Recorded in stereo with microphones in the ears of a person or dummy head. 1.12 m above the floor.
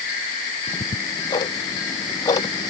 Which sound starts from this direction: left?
Ticking, at 0.7 s.